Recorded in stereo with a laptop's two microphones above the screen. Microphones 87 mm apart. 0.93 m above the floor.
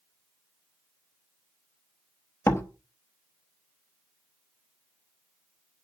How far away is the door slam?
About 0.8 m.